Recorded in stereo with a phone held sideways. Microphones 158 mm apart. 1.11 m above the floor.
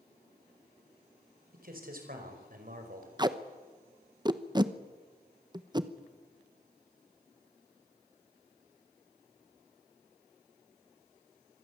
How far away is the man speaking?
About 5 m.